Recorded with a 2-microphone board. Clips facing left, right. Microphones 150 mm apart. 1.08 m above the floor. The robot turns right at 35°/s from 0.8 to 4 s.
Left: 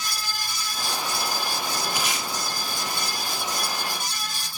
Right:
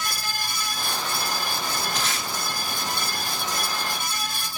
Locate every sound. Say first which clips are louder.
1.9 s tape being pulled: even; 10° left (ahead or behind), 2 m; by 2.3 s 20° left (ahead or behind), 2 m